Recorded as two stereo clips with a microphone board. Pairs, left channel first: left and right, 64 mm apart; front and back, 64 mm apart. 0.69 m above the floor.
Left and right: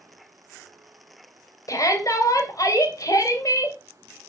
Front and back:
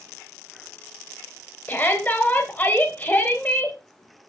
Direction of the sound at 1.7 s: 65° left.